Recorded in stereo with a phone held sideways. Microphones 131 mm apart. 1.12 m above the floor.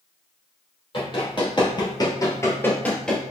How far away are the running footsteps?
About 1.8 m.